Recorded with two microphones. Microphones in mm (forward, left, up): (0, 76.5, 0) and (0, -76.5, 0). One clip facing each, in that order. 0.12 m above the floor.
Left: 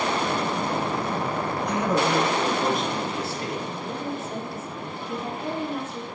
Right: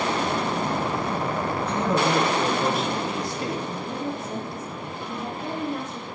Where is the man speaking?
15° left (ahead or behind), 4 m; by 3.6 s 25° right (ahead or behind), 3 m.